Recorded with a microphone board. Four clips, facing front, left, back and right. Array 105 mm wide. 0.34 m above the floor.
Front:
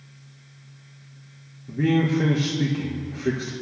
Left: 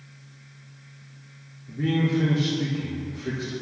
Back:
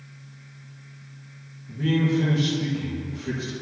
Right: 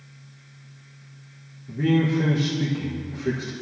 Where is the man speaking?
15° right, 5.5 m.